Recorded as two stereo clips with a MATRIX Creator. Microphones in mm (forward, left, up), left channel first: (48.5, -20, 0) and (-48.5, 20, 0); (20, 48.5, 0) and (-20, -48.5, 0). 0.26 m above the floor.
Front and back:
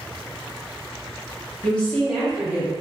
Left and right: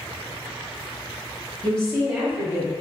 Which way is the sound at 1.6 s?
25° left.